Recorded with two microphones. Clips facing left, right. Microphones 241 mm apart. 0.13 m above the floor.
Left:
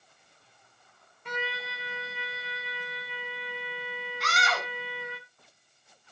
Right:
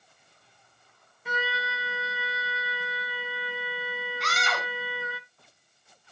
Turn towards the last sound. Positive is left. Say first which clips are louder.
# left 3 dB
turn(degrees=0)  # may be behind; listen again after turning